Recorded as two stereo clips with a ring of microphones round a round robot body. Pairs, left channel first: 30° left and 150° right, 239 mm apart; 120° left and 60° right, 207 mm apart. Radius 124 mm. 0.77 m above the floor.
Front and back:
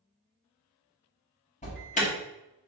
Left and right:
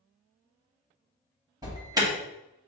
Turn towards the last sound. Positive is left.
turn(degrees=0)